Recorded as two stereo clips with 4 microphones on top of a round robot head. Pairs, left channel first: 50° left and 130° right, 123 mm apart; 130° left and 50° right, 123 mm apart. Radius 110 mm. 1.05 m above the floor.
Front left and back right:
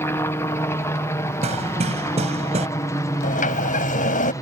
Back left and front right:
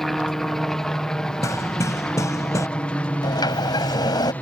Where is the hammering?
165° right.